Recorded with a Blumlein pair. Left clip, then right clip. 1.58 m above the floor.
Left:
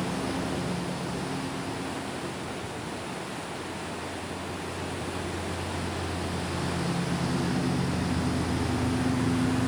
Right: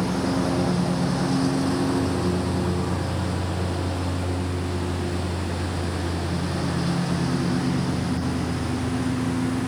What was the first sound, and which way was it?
A lawn mower, 65° right.